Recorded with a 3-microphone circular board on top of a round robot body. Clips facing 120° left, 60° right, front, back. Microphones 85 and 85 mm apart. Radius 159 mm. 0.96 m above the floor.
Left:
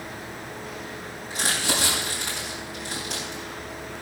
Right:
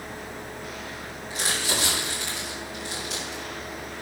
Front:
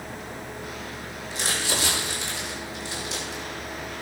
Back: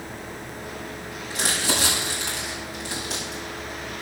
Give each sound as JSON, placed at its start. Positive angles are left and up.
{"t": 1.3, "sound": "crumpling", "azimuth_deg": 165, "distance_m": 7.0}